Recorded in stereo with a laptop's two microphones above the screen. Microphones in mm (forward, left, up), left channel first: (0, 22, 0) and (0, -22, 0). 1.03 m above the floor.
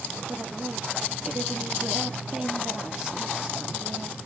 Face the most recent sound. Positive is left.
turn(degrees=-15)  # may be behind; listen again after turning